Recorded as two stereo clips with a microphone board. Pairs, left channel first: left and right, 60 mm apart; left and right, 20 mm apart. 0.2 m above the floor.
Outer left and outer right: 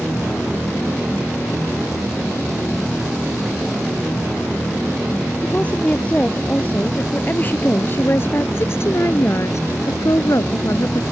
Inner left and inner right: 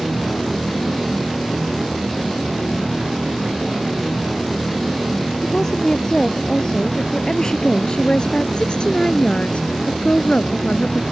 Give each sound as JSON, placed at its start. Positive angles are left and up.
{"t": 5.4, "sound": "a woman speaking", "side_deg": 20}